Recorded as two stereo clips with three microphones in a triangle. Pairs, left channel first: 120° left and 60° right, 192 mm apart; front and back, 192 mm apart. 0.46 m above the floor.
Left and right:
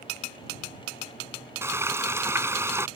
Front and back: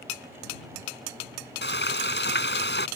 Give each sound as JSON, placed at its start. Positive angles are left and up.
{"t": 1.6, "sound": "frying", "azimuth_deg": 15}